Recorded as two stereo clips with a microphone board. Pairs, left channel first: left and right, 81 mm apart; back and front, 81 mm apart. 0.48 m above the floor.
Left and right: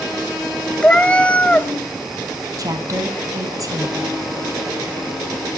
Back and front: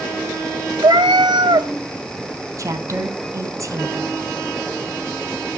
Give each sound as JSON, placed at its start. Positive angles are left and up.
{"t": 0.8, "sound": "a cat meowing", "azimuth_deg": 15, "distance_m": 0.8}
{"t": 2.6, "sound": "a woman speaking", "azimuth_deg": -50, "distance_m": 3.0}